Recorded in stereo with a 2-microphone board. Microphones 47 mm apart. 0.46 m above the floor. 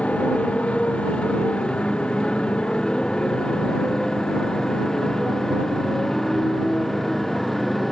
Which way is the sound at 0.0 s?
30° left (ahead or behind).